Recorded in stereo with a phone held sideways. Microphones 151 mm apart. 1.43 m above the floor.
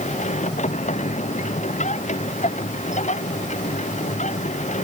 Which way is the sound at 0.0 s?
50° left (ahead or behind).